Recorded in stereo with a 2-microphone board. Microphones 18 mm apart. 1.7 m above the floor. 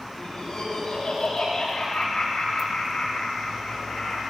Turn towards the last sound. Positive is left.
turn(degrees=90)